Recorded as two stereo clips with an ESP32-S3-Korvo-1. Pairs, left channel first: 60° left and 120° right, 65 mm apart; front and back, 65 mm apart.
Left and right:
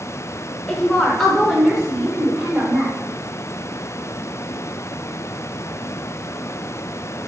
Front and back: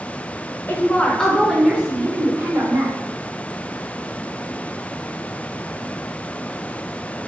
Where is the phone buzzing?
I don't hear a phone buzzing.